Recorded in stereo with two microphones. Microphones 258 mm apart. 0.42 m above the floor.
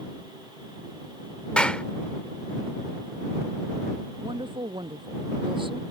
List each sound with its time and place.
1.6 s a clap: 5° left (ahead or behind)
4.2 s a woman speaking: 20° right (ahead or behind)